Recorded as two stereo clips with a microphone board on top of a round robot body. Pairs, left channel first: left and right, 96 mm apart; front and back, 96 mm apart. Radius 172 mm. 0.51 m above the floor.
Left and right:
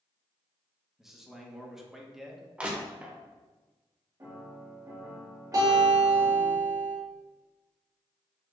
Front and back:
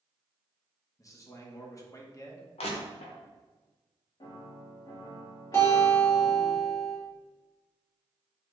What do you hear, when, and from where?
1.0 s a man speaking: 5° right, 1.0 m
2.6 s crushing: 15° right, 0.7 m
4.2 s a piano: 40° right, 1.6 m
5.5 s a guitar: 55° right, 1.9 m